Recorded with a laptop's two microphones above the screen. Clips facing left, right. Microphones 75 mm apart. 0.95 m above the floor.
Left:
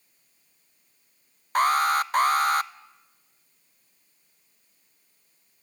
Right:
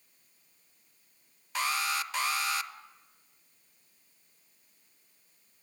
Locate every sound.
1.6 s an alarm: 50° left (ahead or behind), 0.5 m